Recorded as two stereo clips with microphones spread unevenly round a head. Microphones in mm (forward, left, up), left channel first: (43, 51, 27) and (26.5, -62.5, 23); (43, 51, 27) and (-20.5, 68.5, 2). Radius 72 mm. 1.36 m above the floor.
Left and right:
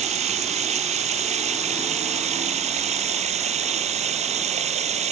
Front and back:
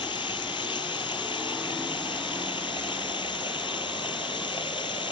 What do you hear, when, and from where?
0.0 s running water: 75° right